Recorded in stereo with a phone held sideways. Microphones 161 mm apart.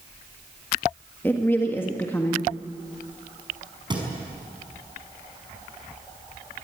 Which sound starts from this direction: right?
A thud, at 3.9 s.